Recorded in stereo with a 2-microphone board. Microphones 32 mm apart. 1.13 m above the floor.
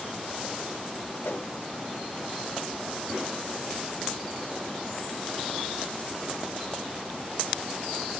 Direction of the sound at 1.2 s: 80° left.